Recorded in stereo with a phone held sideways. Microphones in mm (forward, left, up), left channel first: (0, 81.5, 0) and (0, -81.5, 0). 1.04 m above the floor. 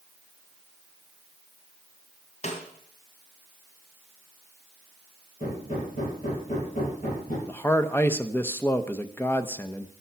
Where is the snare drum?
45° left (ahead or behind), 2.5 m.